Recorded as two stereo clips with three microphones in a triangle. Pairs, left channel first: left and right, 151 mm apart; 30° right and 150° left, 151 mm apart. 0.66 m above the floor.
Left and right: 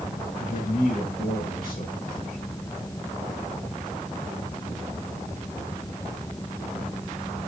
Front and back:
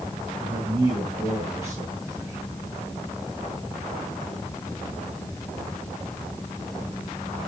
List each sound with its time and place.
0.4 s a man speaking: 85° left, 6.5 m